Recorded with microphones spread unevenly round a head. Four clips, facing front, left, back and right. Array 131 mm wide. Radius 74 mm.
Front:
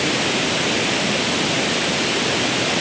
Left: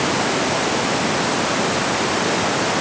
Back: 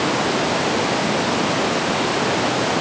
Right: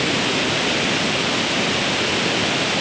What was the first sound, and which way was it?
Only background noise.